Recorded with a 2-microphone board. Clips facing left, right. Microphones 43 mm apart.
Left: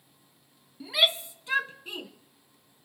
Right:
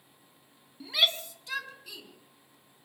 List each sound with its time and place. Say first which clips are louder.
0.8 s a shout: left 2 dB; 5° left (ahead or behind), 1.1 m; by 2.1 s 40° left (ahead or behind), 1.5 m